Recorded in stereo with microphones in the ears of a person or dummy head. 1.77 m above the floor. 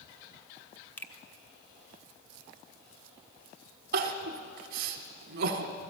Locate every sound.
1.0 s a finger snap: 15° left (ahead or behind), 0.9 m
3.9 s crying: 50° right (ahead or behind), 1.1 m